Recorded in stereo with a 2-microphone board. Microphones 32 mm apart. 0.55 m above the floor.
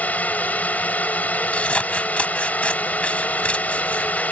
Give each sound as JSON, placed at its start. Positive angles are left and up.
{"t": 0.0, "sound": "a drone", "side_deg": 60}
{"t": 1.5, "sound": "scissors", "side_deg": 45}